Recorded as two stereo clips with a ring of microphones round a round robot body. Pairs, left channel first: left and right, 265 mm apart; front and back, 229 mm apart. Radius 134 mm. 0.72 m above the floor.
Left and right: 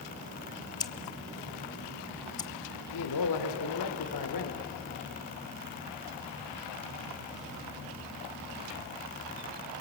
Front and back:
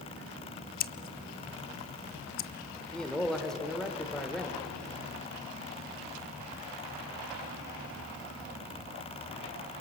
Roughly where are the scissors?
Ahead left.